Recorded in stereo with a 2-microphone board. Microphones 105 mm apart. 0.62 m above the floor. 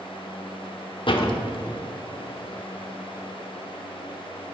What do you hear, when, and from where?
1.1 s a door slam: 55° left (ahead or behind), 1.1 m